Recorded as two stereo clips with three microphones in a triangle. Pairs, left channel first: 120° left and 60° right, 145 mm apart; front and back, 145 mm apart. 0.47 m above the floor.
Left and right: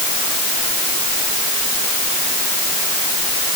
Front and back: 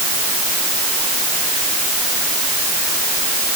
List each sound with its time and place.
Only background noise.